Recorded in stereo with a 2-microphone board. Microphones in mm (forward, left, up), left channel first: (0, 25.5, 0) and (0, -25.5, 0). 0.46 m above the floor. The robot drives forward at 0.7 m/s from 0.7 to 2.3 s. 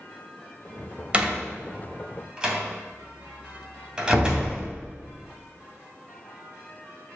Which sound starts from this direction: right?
A door slam, at 1.1 s.